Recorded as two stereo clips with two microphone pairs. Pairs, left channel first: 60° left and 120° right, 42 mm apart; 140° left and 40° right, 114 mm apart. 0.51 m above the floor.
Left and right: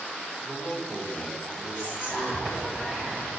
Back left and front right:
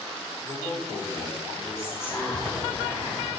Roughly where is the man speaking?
Behind left.